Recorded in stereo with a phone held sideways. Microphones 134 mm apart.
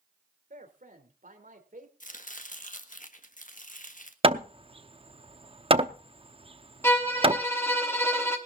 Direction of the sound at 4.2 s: 40° right (ahead or behind).